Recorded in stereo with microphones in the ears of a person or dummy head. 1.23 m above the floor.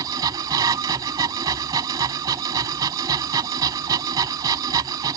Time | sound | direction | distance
0.0 | a machine running | 20° right (ahead or behind) | ?